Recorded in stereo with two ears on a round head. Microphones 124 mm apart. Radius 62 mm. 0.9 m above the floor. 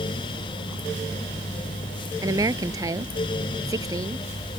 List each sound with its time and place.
2.2 s a woman speaking: 25° right (ahead or behind)